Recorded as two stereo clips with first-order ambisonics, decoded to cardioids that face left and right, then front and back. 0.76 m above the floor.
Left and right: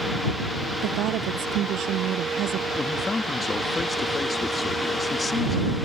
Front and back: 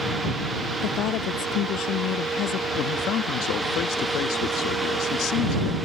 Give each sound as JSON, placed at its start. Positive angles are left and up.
{"t": 0.8, "sound": "a woman speaking", "azimuth_deg": -40}
{"t": 2.8, "sound": "a man speaking", "azimuth_deg": 20}